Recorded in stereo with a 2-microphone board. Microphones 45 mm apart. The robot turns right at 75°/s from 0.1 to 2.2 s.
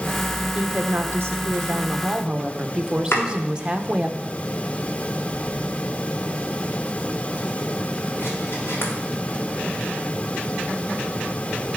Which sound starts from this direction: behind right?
A woman speaking, at 0.6 s.